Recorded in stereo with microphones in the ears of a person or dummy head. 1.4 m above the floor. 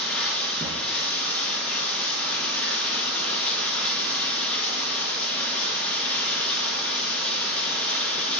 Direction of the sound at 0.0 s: 5° left (ahead or behind).